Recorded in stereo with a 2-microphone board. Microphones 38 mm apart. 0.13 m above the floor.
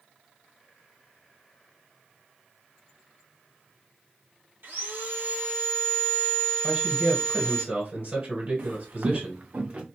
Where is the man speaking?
35° right (ahead or behind), 1.8 m.